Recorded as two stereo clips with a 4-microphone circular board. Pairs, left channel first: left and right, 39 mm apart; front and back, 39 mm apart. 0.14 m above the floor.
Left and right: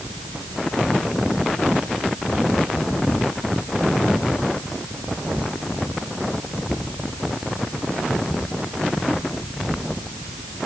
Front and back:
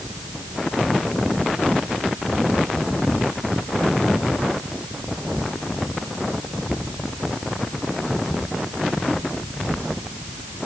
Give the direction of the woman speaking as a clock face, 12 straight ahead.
No woman speaking in this recording.